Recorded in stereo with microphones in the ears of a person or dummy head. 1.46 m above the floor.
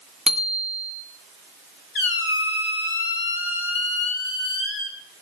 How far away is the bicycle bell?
About 2.5 m.